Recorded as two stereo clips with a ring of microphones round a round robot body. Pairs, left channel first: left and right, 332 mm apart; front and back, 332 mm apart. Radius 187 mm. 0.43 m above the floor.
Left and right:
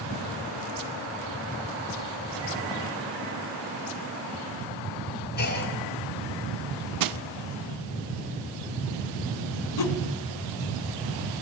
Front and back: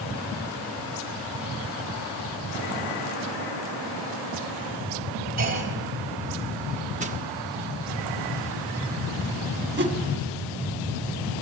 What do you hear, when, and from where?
5.4 s a clunk: 145° left, 3 m
7.0 s crushing: 110° right, 0.5 m
9.8 s a whoosh: 120° left, 1.3 m